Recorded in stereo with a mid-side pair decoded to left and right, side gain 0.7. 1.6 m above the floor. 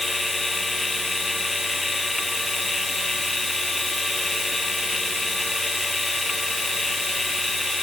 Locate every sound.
0.0 s a machine running: 10° left